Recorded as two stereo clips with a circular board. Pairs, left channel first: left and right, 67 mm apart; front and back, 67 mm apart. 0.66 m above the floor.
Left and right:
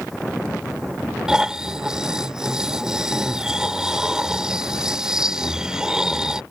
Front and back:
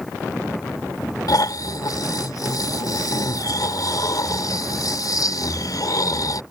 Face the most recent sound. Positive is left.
turn(degrees=-10)